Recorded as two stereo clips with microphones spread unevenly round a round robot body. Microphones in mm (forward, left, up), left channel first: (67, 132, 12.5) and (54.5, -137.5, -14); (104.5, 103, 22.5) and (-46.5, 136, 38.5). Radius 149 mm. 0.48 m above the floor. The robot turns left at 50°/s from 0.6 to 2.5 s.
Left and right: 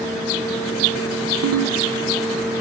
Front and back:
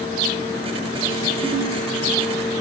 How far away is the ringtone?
About 0.8 m.